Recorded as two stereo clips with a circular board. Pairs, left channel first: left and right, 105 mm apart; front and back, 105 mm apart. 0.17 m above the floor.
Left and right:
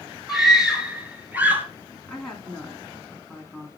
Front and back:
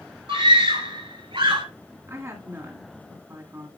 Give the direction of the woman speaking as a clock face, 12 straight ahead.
6 o'clock.